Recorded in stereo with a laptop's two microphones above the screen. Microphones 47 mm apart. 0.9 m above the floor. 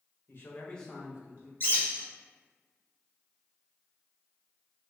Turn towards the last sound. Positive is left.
turn(degrees=50)  # may be behind; listen again after turning